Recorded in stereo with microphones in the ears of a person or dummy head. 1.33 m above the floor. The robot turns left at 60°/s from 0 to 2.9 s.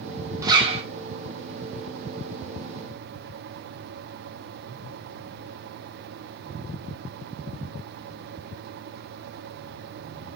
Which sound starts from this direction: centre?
A zipper, at 0.4 s.